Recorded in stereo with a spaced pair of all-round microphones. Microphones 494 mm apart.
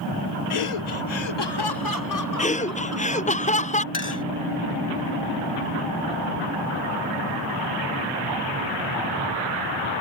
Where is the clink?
80° left.